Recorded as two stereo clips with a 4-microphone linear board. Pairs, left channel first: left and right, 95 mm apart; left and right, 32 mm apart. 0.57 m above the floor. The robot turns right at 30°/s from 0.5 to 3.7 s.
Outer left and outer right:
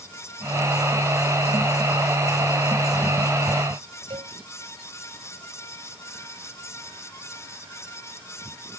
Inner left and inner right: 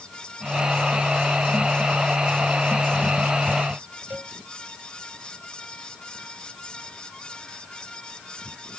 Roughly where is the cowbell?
Right.